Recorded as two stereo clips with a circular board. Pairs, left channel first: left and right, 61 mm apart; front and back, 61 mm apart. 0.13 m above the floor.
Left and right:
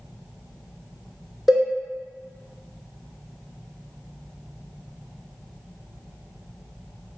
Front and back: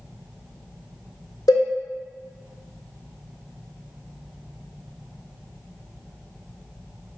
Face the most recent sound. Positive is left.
turn(degrees=-5)